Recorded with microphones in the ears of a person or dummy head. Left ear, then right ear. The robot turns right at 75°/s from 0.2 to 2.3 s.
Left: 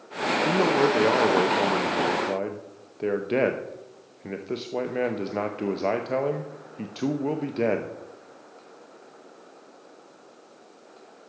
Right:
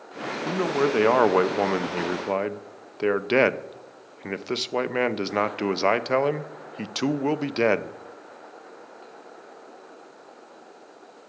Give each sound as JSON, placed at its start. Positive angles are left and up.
{"t": 0.5, "sound": "a man speaking", "azimuth_deg": 170, "distance_m": 0.6}